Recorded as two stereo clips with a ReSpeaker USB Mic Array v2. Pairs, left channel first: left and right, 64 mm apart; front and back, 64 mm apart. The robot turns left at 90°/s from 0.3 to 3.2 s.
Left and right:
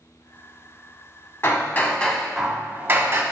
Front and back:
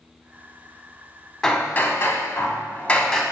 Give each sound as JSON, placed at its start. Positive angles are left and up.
{"t": 1.4, "sound": "hammering", "azimuth_deg": 75, "distance_m": 0.6}